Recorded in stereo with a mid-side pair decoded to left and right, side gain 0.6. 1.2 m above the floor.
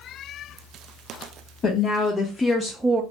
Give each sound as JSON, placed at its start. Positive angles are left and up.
{"t": 1.6, "sound": "a woman speaking", "azimuth_deg": 45, "distance_m": 1.2}